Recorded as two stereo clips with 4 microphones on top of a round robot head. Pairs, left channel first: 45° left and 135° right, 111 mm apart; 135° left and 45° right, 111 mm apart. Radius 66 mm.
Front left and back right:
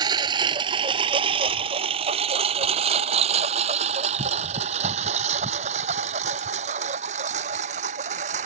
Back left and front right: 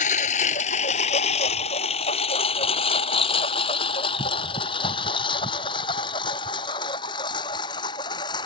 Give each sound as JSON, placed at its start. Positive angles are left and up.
{"t": 0.0, "sound": "a lawn mower", "azimuth_deg": 165}